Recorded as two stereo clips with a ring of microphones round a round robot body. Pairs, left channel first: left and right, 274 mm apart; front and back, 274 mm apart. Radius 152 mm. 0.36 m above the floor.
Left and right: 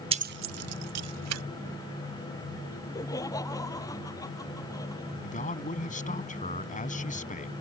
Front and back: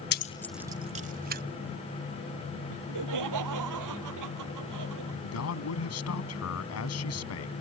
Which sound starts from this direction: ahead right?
Keys jangling, at 0.1 s.